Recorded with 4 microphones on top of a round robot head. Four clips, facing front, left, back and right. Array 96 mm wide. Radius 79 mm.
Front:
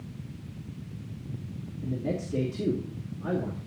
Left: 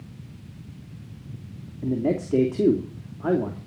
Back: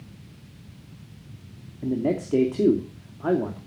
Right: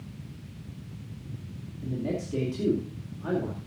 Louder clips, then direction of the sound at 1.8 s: Left 7 dB, back 7 dB; 135° left.